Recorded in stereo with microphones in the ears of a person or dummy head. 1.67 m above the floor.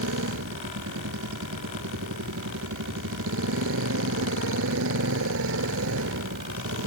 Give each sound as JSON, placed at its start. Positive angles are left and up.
{"t": 0.0, "sound": "a motorcycle", "side_deg": -70}